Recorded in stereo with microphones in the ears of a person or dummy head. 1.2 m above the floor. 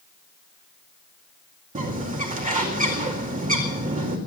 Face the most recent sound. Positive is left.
turn(degrees=-35)  # may be behind; listen again after turning